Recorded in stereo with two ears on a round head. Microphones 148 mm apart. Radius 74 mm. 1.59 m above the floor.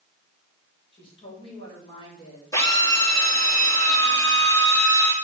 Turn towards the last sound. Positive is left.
turn(degrees=20)  # may be behind; listen again after turning